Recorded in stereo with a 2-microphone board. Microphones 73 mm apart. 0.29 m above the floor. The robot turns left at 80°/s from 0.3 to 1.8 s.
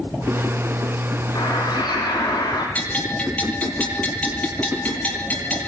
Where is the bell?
20° left (ahead or behind), 8.5 m.